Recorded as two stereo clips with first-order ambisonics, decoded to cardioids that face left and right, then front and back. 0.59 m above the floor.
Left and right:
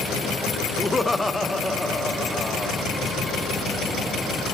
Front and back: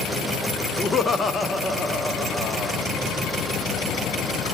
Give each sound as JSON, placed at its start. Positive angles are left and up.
{"t": 0.8, "sound": "laughter", "azimuth_deg": 20, "distance_m": 0.6}